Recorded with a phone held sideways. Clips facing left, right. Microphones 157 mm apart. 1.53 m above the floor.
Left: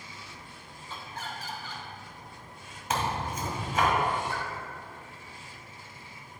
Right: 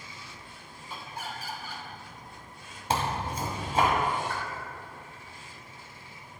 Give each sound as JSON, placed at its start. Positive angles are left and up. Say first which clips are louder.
{"t": 0.9, "sound": "laughter", "louder": "right 1 dB", "side_deg": -10, "distance_m": 1.4}
{"t": 2.9, "sound": "tearing paper", "louder": "right 1 dB", "side_deg": -35, "distance_m": 1.7}
{"t": 4.3, "sound": "a pop", "louder": "even", "side_deg": 30, "distance_m": 2.0}